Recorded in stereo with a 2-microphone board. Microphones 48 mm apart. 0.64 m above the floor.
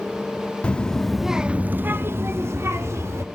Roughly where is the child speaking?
Left.